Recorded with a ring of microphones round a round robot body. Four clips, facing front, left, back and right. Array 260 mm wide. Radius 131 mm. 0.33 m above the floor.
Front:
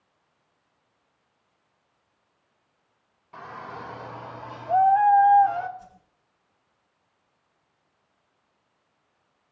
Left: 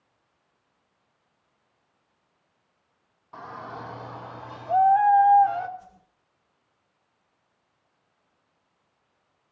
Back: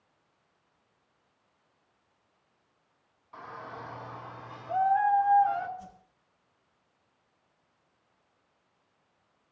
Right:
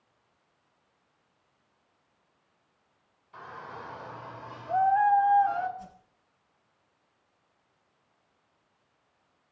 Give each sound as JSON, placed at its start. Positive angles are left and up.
{"t": 3.3, "sound": "a shout", "azimuth_deg": 65, "distance_m": 3.5}
{"t": 5.8, "sound": "a whoosh", "azimuth_deg": -140, "distance_m": 5.5}